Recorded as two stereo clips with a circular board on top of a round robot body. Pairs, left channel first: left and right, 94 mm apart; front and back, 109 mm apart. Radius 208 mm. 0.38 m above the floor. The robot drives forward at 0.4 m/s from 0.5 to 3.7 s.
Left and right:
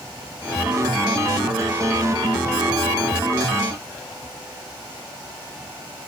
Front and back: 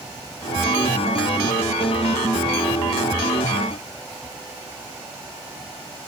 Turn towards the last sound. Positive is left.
No sound to turn to.